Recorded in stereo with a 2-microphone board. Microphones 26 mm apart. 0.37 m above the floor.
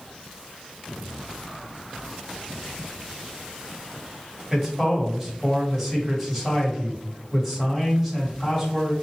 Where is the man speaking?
5° right (ahead or behind), 1.7 m.